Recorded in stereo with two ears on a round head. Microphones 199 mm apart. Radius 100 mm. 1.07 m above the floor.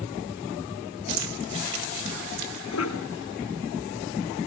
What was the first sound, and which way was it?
Keys jangling, 70° right (ahead or behind).